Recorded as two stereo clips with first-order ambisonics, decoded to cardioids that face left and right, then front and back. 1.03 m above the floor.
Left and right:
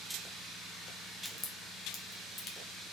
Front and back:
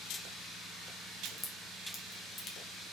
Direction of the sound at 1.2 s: 45° left.